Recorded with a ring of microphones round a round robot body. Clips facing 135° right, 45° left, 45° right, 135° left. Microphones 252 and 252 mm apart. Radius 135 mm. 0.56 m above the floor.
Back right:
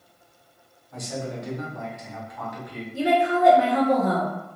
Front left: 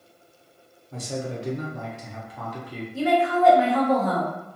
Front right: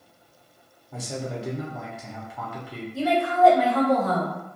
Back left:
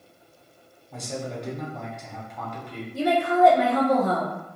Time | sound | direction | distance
0.9 | a man speaking | 35° left | 0.7 m
2.9 | a woman speaking | 175° left | 0.9 m